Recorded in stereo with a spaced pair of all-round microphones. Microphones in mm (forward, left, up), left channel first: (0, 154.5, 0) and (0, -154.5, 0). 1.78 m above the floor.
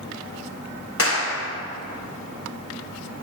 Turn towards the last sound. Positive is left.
turn(degrees=45)  # may be behind; listen again after turning